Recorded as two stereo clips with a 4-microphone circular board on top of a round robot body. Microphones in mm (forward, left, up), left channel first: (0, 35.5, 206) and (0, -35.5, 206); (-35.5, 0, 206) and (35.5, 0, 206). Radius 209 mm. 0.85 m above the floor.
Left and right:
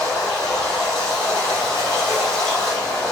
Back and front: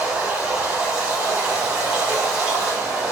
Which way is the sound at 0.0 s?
60° left.